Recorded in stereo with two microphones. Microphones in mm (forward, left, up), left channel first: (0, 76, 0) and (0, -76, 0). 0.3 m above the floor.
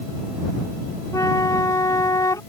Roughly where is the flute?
Left.